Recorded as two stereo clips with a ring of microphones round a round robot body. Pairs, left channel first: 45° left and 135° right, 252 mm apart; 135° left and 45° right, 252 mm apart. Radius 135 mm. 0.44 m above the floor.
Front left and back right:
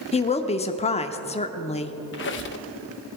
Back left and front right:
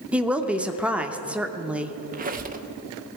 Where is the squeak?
10° left, 0.8 m.